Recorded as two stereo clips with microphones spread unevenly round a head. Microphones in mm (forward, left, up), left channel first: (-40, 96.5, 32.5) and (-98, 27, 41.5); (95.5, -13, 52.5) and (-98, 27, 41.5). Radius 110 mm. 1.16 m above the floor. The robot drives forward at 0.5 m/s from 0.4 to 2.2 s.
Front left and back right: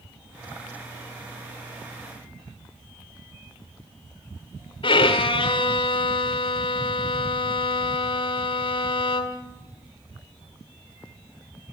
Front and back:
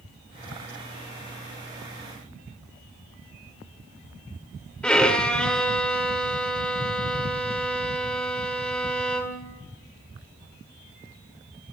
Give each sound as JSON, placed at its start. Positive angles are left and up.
{"t": 4.8, "sound": "a violin", "azimuth_deg": 70, "distance_m": 1.7}